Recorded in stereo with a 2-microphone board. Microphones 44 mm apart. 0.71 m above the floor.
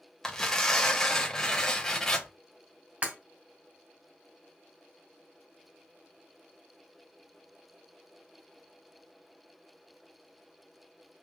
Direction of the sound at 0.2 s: 10° left (ahead or behind).